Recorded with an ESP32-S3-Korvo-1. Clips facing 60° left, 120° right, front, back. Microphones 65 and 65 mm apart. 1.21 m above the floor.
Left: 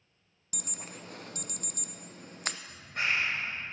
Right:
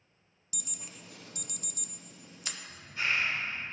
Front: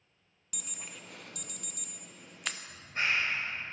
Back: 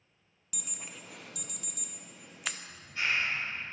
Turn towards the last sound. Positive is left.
turn(degrees=45)